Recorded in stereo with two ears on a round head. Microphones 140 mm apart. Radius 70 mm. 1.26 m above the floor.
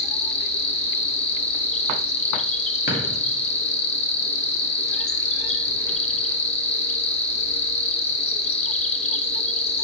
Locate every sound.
0.0 s an insect: 40° left (ahead or behind), 0.9 m
2.9 s a drawer: 60° left (ahead or behind), 2.5 m